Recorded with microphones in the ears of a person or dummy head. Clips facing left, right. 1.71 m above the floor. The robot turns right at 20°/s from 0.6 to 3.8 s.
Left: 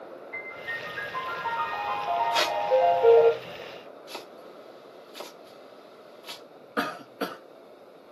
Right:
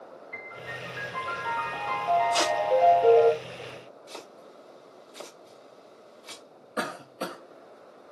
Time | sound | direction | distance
0.3 | a piano | 70° right | 3 m
2.3 | tape being pulled | 60° right (ahead or behind) | 3 m
4.1 | chopping | 10° left (ahead or behind) | 1.4 m
6.8 | a cough | 10° left (ahead or behind) | 1.0 m